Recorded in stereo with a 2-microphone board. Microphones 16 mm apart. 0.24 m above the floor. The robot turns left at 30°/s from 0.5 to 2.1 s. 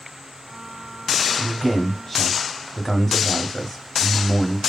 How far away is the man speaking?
About 0.9 m.